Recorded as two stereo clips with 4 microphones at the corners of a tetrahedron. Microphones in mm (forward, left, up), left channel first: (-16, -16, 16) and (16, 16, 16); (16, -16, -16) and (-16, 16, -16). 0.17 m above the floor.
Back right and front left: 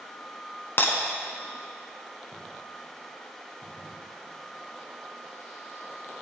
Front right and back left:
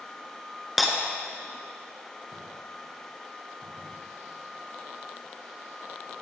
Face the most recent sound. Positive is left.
turn(degrees=-140)